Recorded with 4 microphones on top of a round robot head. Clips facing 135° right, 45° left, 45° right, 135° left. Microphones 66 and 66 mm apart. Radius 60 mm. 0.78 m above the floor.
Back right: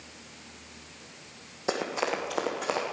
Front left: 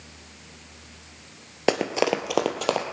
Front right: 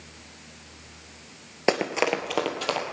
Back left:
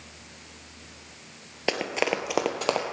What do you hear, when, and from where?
1.7 s running footsteps: 20° left, 1.1 m; by 2.9 s 75° left, 1.8 m